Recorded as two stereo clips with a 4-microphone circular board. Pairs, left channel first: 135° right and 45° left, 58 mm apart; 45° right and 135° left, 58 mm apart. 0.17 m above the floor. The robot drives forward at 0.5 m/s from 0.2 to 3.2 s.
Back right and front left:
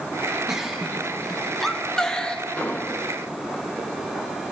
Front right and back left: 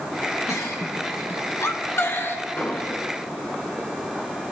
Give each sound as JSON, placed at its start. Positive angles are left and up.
{"t": 0.5, "sound": "a giggle", "azimuth_deg": -35, "distance_m": 1.6}
{"t": 2.6, "sound": "an explosion", "azimuth_deg": -85, "distance_m": 1.3}